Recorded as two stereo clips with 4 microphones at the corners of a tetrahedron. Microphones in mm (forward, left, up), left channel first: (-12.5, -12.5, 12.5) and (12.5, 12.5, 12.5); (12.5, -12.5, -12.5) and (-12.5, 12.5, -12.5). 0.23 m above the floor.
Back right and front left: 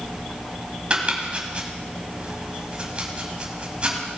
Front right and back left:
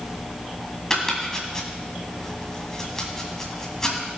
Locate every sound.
0.9 s chopping: 20° left, 1.8 m